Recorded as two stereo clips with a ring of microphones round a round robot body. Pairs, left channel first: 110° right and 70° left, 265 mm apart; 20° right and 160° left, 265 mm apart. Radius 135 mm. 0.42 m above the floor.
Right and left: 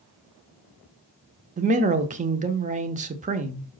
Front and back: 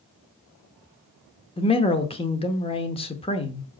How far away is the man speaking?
About 0.9 m.